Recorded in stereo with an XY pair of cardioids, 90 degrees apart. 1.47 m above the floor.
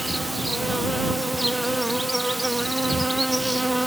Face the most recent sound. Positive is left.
turn(degrees=-10)